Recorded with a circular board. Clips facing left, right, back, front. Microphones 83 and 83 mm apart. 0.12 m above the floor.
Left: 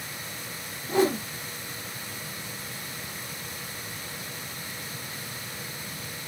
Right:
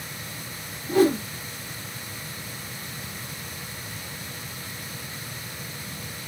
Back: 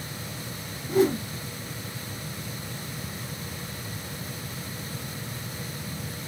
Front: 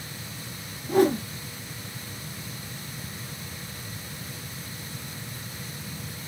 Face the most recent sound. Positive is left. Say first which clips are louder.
# right 4 dB, front 1 dB
turn(degrees=25)